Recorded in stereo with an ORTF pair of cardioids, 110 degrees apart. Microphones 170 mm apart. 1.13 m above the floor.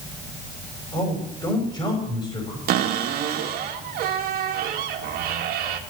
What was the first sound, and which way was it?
A man speaking, 25° left.